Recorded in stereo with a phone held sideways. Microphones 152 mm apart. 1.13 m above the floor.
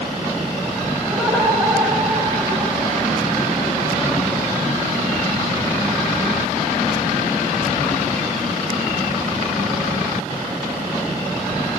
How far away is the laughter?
About 5.5 m.